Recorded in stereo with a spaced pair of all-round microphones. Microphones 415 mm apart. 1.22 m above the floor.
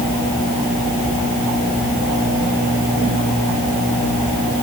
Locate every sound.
Only background noise.